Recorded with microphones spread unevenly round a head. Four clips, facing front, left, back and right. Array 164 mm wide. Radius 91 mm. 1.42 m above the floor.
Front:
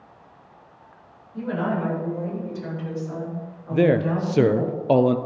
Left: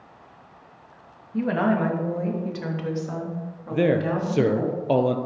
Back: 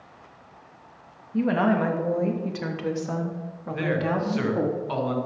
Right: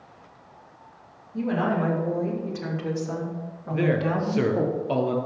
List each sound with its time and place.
1.3 s a woman speaking: 150° left, 2.5 m; by 4.7 s 165° right, 4 m
3.7 s a man speaking: 20° left, 0.7 m